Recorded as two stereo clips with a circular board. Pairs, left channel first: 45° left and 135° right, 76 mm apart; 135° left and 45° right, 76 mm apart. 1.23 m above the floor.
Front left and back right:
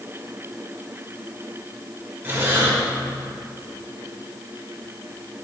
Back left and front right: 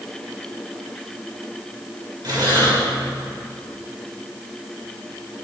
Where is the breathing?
70° right, 2.5 m.